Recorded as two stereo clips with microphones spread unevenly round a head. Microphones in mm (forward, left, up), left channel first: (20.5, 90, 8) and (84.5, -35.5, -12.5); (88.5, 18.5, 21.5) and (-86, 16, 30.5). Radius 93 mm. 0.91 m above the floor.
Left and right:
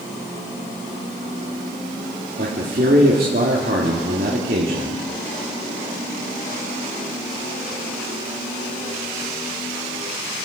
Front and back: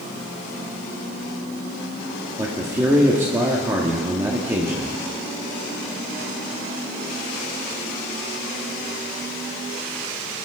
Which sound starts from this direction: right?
A man speaking, at 2.4 s.